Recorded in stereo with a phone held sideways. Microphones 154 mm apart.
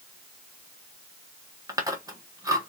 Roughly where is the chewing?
Right.